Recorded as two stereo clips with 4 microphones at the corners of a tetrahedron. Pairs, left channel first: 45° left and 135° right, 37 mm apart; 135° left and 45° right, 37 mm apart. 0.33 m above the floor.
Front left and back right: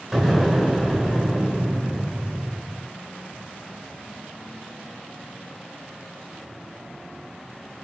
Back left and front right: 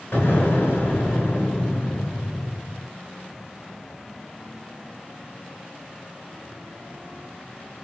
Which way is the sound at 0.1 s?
140° left.